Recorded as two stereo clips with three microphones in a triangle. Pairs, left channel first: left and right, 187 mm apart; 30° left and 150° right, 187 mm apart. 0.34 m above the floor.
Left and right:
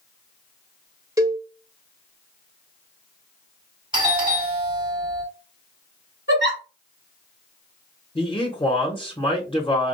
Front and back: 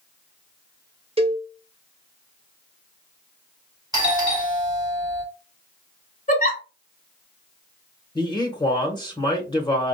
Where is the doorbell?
110° right, 1.6 m.